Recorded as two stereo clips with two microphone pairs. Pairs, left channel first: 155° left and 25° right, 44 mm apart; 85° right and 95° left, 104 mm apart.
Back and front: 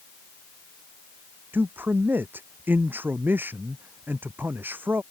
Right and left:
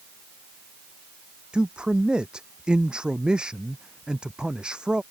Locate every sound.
1.5 s a man speaking: 15° left